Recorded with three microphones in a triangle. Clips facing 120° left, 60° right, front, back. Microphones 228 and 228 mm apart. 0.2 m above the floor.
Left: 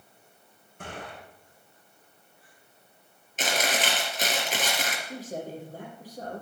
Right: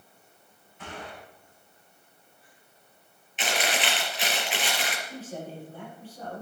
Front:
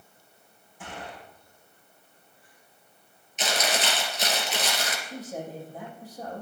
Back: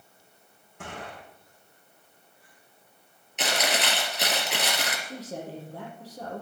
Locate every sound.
0.8 s a gunshot: 160° left, 6.5 m
3.4 s chewing: 165° left, 4 m
5.0 s a man speaking: 170° left, 6 m